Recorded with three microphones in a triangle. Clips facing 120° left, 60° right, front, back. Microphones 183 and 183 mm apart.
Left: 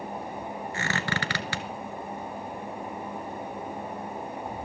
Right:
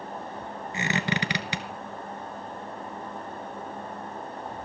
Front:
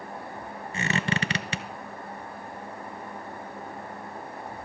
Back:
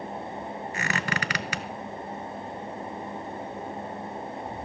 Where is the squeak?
10° right, 0.6 m.